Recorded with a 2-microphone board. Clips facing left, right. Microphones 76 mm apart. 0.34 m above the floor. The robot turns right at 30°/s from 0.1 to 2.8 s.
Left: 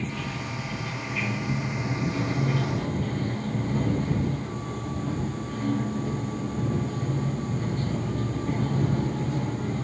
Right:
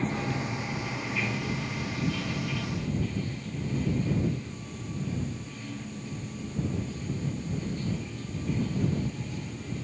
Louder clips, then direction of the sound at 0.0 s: Right 2 dB; 35° right.